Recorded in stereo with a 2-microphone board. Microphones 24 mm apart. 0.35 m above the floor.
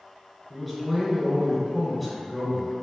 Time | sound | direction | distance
0.5 | a man speaking | centre (ahead or behind) | 1.1 m